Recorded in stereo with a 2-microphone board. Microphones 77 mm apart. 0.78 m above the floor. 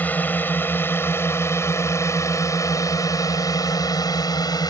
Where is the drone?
25° left (ahead or behind); by 4.7 s 70° left (ahead or behind).